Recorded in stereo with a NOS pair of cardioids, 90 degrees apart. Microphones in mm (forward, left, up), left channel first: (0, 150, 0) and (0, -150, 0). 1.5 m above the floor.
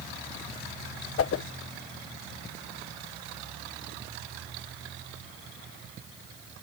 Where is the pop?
I don't hear a pop.